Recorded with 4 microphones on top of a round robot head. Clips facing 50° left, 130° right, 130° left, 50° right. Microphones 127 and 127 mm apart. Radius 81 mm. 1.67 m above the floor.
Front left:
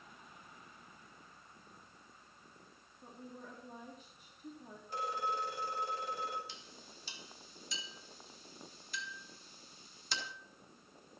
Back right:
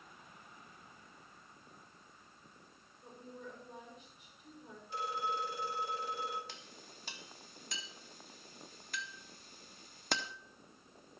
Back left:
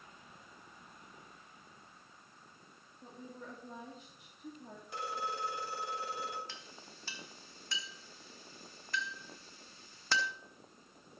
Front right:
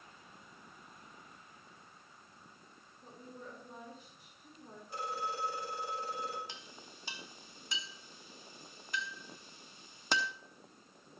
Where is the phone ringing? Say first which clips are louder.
Even, even; 95° left, 3 m.